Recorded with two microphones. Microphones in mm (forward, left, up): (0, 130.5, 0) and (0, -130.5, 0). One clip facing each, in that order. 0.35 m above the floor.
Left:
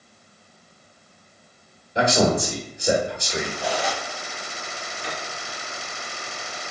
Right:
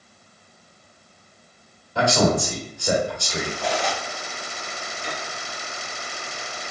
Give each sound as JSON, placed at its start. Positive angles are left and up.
{"t": 1.9, "sound": "a man speaking", "side_deg": 20, "distance_m": 1.2}
{"t": 3.6, "sound": "cutlery clinking", "side_deg": 10, "distance_m": 0.9}
{"t": 5.0, "sound": "a piano", "side_deg": 80, "distance_m": 1.1}